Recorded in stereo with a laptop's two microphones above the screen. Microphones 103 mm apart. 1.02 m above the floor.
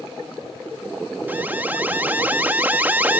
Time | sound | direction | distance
1.3 | an alarm | 15° right (ahead or behind) | ?